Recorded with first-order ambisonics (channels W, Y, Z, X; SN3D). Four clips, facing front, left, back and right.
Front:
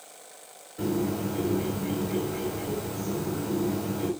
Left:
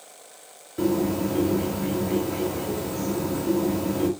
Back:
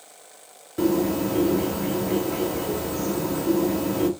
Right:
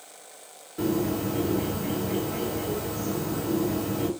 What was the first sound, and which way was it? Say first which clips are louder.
A bird: left 3 dB, back 6 dB; 165° left.